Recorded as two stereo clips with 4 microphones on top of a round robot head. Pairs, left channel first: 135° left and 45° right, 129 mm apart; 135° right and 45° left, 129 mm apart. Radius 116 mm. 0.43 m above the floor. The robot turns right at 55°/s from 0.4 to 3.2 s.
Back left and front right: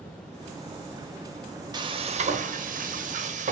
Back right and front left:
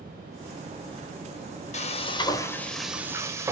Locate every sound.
1.7 s frying: 105° right, 0.8 m; by 3.5 s 25° right, 0.8 m